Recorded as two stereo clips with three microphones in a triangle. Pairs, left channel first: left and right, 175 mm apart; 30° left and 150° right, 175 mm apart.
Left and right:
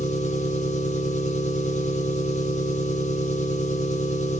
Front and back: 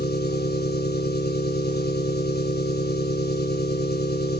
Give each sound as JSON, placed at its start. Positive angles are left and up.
{"t": 0.0, "sound": "an engine running", "azimuth_deg": 45, "distance_m": 6.0}